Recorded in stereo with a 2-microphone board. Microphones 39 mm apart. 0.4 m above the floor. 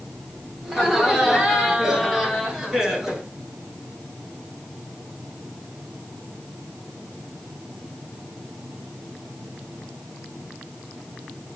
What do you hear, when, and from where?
0.6 s laughter: 10° right (ahead or behind), 8.5 m